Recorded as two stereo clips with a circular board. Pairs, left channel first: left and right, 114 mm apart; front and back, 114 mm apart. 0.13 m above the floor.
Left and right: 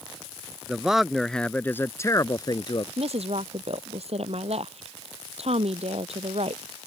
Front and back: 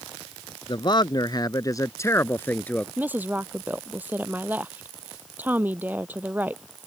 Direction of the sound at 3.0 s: 105° right.